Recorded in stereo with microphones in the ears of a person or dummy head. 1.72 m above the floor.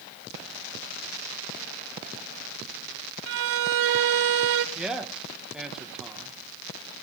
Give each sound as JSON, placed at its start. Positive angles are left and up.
{"t": 3.3, "sound": "a violin", "side_deg": -70, "distance_m": 0.7}
{"t": 4.8, "sound": "a man speaking", "side_deg": -5, "distance_m": 1.9}